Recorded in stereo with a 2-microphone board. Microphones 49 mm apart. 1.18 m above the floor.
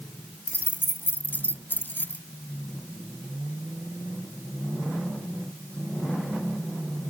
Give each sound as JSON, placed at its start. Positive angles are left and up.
{"t": 0.5, "sound": "keys jangling", "side_deg": 45}